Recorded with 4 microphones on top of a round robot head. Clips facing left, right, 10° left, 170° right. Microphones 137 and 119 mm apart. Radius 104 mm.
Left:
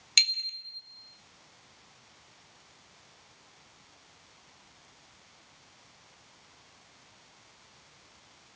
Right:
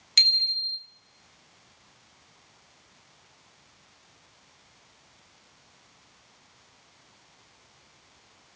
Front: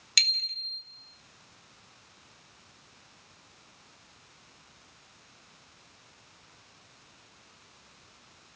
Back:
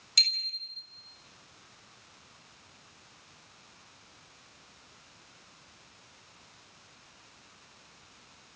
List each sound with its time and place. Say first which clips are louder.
0.2 s a bicycle bell: right 2 dB, front 3 dB; 15° left, 4 m